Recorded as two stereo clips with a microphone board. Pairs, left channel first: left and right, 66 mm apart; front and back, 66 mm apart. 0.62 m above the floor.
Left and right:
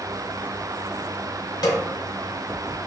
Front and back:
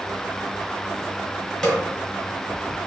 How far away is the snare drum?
About 1.0 m.